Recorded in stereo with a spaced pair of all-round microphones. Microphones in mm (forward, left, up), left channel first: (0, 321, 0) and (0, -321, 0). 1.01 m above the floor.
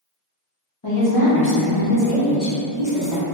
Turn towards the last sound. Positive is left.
turn(degrees=45)  # may be behind; listen again after turning